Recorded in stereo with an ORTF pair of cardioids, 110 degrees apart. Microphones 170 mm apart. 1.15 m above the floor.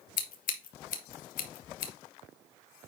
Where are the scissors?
60° left, 1.6 m.